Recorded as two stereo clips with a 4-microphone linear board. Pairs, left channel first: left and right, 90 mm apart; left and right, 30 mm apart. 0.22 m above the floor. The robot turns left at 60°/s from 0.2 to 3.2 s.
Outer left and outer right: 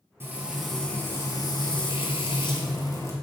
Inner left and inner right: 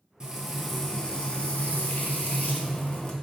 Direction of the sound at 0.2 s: 155° right.